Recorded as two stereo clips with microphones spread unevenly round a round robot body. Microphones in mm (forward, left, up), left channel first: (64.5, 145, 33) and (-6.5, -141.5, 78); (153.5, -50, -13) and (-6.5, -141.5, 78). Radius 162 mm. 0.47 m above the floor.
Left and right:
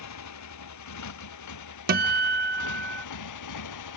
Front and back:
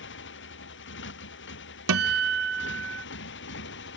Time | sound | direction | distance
0.0 | a motorcycle | 45° left | ?
1.9 | a guitar | 165° right | ?